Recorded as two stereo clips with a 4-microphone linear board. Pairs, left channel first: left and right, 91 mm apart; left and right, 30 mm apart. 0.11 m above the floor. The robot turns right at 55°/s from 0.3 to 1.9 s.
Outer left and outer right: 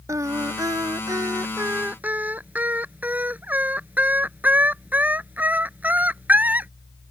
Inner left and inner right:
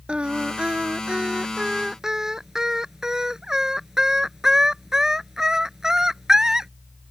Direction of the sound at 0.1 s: 115° right.